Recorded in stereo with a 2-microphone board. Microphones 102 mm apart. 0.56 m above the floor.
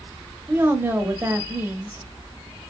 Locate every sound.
0.5 s a woman speaking: 20° right (ahead or behind), 1.0 m